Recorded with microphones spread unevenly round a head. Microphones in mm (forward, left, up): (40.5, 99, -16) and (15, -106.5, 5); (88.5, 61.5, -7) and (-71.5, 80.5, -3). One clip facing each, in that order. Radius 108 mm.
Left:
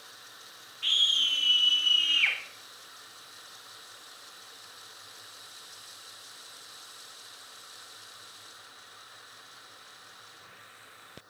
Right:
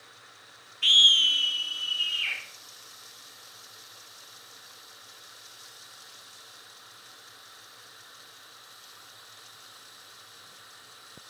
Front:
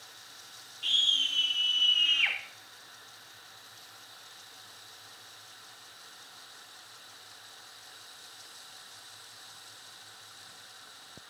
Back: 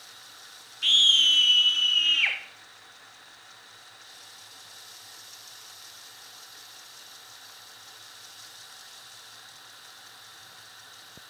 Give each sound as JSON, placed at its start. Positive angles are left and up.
{"t": 0.8, "sound": "a scream", "azimuth_deg": -135, "distance_m": 1.1}